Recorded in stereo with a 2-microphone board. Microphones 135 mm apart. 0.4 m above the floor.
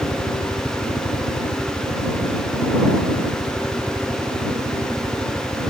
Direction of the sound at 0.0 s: 25° right (ahead or behind).